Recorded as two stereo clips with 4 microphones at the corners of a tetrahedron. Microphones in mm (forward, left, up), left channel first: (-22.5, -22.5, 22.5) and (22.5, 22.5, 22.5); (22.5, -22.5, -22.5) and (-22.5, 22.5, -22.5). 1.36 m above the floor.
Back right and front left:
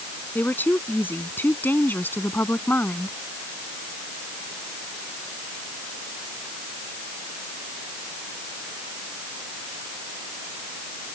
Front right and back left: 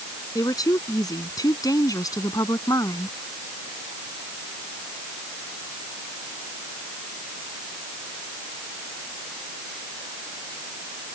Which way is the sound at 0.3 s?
70° right.